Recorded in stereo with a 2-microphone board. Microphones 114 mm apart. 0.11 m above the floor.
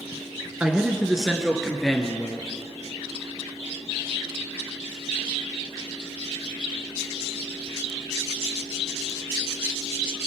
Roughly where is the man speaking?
Centre.